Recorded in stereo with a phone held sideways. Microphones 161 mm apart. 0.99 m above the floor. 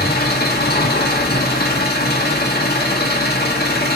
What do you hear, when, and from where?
0.0 s an engine running: 80° left, 1.7 m